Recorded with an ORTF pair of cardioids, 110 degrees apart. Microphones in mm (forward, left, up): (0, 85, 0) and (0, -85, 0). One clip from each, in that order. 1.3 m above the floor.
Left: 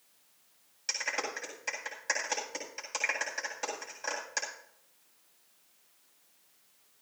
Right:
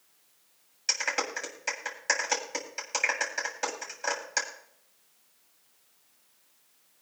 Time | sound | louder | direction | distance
0.9 | a clap | right 4 dB | 25° right | 8 m